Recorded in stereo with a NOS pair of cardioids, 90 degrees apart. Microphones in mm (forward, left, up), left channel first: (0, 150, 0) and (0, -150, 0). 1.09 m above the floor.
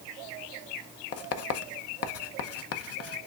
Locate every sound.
1.1 s writing: 55° left, 0.8 m